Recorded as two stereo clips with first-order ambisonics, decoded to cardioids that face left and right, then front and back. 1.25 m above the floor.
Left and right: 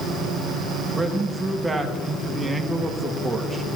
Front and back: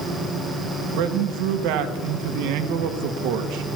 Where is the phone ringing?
No phone ringing in this recording.